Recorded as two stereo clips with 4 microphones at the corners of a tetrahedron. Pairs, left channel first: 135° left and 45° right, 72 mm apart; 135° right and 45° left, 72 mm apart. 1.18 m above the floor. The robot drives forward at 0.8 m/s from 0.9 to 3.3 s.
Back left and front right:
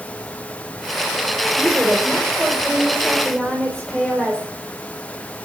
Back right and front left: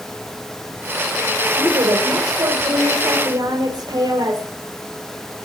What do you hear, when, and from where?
1.6 s a woman speaking: 35° left, 5 m; by 4.5 s 50° left, 4 m